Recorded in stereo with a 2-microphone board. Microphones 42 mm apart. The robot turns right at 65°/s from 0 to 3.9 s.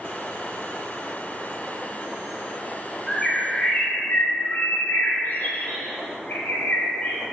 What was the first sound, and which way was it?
A bird, straight ahead.